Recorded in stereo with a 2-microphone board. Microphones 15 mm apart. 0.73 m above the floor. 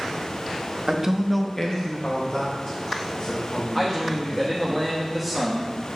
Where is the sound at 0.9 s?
40° right (ahead or behind), 0.7 m; by 4.8 s 80° left, 4 m.